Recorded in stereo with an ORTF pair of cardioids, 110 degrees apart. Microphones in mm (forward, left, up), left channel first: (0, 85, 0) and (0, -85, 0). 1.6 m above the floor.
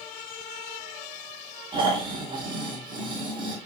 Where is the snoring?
30° right, 3 m.